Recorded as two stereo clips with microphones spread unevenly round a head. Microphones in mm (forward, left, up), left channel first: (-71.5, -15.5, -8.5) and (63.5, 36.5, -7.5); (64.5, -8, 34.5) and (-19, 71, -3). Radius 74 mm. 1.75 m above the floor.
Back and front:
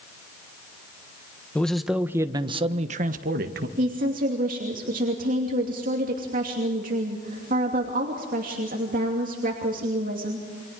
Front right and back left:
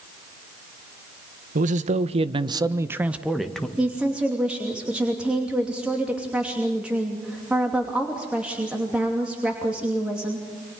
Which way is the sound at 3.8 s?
50° left.